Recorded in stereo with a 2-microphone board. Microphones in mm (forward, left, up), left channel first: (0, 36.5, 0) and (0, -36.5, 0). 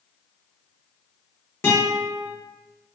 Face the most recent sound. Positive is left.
turn(degrees=30)  # may be behind; listen again after turning